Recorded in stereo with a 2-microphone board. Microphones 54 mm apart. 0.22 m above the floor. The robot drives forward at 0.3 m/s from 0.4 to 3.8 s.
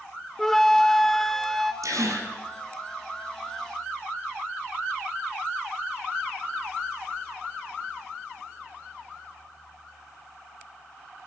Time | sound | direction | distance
0.4 | a flute | 10° left (ahead or behind) | 0.9 m
1.8 | a gasp | 75° right (ahead or behind) | 4.5 m